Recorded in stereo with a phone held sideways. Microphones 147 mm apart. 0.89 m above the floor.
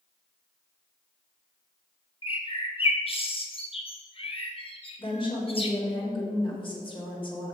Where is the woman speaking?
35° left (ahead or behind), 2.5 m.